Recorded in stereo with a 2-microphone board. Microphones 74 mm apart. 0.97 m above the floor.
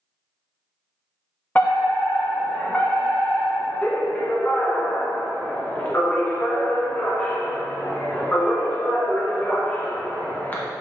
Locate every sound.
1.6 s a fire alarm: 20° left (ahead or behind), 1.4 m